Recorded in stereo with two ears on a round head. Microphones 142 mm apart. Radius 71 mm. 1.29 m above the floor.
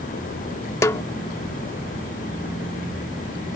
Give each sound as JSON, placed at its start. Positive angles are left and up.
{"t": 0.8, "sound": "a snare drum", "side_deg": 20}